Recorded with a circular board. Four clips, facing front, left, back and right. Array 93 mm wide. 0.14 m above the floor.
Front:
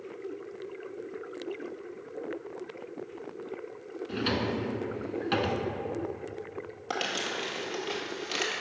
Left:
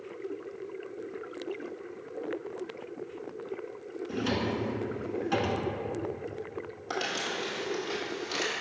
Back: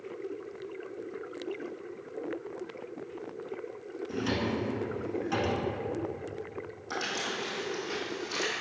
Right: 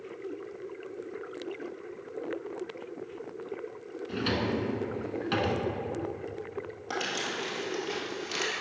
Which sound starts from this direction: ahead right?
A drawer, at 4.1 s.